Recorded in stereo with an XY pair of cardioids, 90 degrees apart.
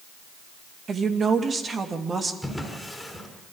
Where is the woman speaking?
50° right, 2.5 m; by 2.3 s 40° right, 3 m.